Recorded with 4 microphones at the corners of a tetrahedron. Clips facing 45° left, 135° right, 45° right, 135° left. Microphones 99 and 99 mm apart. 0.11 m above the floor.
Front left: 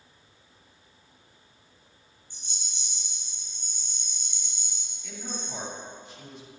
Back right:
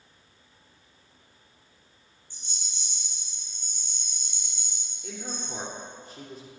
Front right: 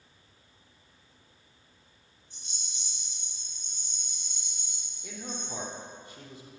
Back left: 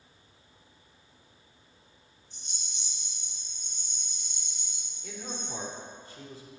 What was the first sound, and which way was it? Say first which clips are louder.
A rattle: even, even; 30° right.